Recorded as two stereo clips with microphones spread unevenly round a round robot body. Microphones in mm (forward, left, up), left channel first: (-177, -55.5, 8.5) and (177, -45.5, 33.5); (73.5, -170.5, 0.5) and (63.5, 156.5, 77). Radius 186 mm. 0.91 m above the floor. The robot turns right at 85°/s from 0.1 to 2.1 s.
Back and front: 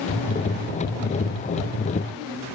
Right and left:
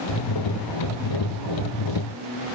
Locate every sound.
Only background noise.